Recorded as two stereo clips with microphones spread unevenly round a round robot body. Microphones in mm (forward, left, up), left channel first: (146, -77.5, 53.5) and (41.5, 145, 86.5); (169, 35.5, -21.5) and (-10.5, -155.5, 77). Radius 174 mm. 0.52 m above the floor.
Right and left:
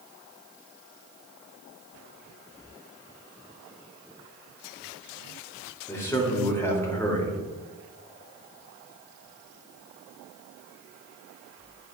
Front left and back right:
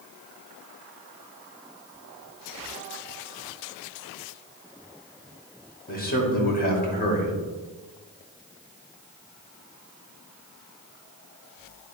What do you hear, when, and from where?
5.9 s a man speaking: 10° left, 2.5 m